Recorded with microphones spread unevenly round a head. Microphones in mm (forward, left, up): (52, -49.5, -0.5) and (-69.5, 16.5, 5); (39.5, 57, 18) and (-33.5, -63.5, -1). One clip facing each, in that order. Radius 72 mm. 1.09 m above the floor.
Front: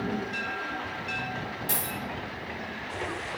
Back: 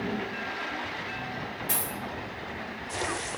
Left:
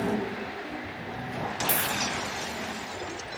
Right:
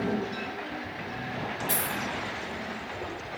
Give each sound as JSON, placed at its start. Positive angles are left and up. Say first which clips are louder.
{"t": 1.7, "sound": "a dropped coin", "louder": "front 1 dB, left 2 dB", "azimuth_deg": 30, "distance_m": 3.5}